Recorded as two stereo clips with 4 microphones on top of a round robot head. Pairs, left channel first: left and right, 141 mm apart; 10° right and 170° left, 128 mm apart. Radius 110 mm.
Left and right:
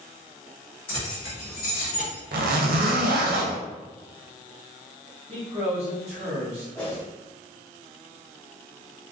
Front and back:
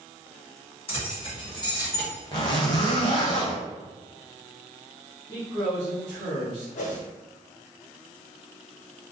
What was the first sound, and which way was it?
Keys jangling, 30° left.